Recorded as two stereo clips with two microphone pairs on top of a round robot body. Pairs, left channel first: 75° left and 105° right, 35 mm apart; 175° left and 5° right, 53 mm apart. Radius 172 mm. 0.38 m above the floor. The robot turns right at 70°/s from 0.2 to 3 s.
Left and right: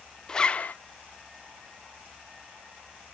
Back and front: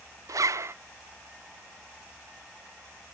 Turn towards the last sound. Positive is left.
turn(degrees=-175)